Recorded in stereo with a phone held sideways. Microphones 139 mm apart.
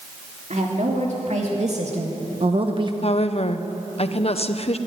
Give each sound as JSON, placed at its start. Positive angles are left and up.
{"t": 0.5, "sound": "a woman speaking", "side_deg": -65, "distance_m": 3.5}
{"t": 3.0, "sound": "a woman speaking", "side_deg": 50, "distance_m": 1.0}